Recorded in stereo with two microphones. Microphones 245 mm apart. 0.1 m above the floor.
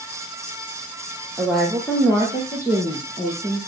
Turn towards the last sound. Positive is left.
turn(degrees=20)  # may be behind; listen again after turning